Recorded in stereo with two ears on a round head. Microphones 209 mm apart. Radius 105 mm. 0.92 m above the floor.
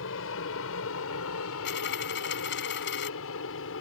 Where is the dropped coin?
55° left (ahead or behind).